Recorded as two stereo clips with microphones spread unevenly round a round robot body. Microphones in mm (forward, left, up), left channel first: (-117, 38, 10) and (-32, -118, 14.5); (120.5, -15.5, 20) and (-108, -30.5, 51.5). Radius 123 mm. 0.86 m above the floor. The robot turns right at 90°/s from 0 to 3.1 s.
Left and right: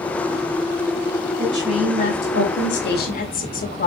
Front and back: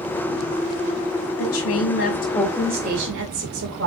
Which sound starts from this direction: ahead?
A woman speaking, at 1.4 s.